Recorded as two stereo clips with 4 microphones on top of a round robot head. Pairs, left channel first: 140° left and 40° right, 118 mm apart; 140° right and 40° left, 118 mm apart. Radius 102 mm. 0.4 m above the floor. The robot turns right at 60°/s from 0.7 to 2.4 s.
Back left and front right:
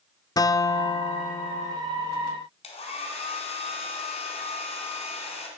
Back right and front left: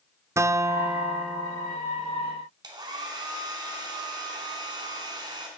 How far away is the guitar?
About 0.5 m.